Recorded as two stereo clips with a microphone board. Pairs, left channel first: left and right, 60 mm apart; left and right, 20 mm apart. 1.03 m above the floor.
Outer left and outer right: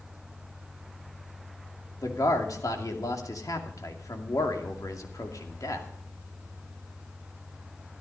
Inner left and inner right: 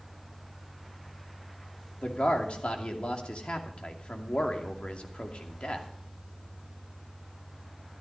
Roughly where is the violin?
I don't hear a violin.